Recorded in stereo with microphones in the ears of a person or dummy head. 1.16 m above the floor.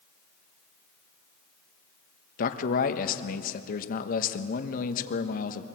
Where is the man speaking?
50° left (ahead or behind), 1.3 m.